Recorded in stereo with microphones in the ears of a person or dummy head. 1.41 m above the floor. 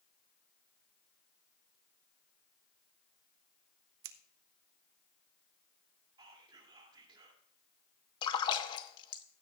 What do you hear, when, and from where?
4.0 s scissors: 70° right (ahead or behind), 0.8 m
6.2 s whispering: 25° right (ahead or behind), 3 m
8.2 s a splash: 30° left (ahead or behind), 0.9 m